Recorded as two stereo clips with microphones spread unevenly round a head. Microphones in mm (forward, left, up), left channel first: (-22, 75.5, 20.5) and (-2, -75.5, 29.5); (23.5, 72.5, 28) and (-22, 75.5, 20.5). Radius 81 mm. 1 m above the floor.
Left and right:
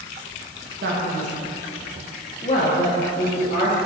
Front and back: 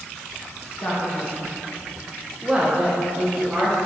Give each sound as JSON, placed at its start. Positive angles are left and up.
{"t": 0.8, "sound": "a man speaking", "azimuth_deg": -70, "distance_m": 1.6}